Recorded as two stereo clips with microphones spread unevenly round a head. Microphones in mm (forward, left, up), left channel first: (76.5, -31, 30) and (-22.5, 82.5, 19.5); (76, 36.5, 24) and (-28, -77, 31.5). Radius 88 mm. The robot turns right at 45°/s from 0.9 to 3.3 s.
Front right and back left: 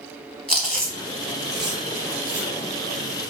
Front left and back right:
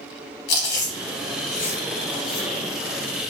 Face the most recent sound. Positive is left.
turn(degrees=145)